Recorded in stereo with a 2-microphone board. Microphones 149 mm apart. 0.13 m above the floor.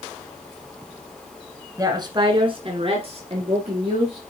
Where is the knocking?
I don't hear knocking.